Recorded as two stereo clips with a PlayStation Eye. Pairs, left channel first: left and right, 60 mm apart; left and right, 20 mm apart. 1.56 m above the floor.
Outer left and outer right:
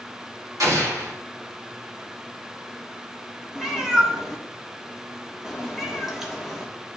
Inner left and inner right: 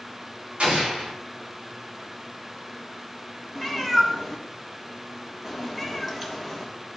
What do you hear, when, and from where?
0.6 s an explosion: 65° right (ahead or behind), 2.0 m
3.5 s a cat meowing: 5° right (ahead or behind), 1.3 m